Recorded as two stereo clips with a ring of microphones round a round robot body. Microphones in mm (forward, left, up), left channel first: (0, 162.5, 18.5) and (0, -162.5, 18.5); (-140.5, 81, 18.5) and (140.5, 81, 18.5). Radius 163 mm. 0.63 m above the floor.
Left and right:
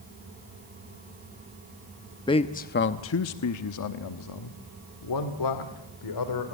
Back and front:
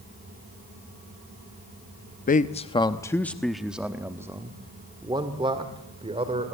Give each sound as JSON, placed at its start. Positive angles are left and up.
{"t": 2.3, "sound": "a man speaking", "azimuth_deg": 155, "distance_m": 0.7}